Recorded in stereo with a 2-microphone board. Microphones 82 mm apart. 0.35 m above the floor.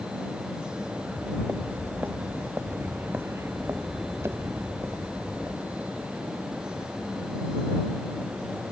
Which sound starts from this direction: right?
Footsteps, at 1.0 s.